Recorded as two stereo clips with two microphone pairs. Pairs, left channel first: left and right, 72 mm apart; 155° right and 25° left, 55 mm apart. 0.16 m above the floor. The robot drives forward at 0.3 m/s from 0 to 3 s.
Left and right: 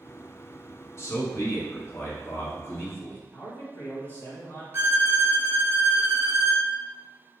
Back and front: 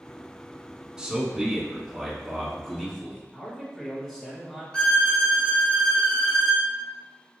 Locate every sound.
1.0 s a man speaking: 95° left, 1.3 m; by 3.2 s 130° left, 1.4 m
3.3 s a man speaking: 125° left, 1.4 m
4.7 s a violin: 105° right, 1.1 m